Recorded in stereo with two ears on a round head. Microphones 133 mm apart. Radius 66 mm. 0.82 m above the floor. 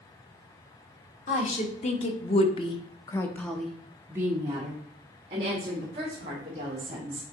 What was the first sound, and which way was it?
A woman speaking, 45° left (ahead or behind).